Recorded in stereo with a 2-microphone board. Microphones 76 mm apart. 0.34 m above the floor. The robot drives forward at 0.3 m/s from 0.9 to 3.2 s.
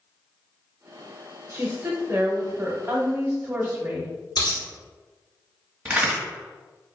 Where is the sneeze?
No sneeze in this recording.